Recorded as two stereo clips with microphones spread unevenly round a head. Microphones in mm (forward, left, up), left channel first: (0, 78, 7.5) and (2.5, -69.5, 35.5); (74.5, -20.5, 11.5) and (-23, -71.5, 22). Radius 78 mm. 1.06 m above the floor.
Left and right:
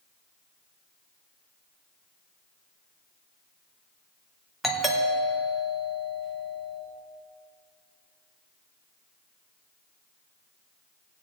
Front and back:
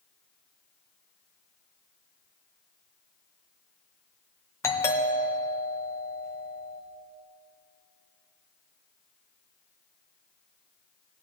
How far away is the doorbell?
About 1.2 m.